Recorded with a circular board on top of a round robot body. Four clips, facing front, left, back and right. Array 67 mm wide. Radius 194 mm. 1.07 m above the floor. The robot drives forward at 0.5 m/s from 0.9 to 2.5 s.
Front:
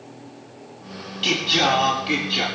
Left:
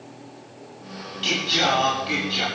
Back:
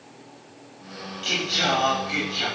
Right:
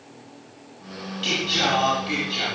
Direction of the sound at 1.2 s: 5° left.